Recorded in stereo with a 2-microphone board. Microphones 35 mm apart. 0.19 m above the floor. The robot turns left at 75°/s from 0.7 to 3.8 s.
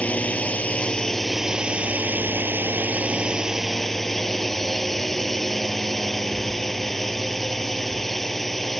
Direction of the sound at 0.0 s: 45° left.